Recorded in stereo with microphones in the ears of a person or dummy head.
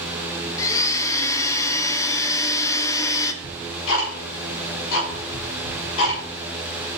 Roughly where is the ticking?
Left.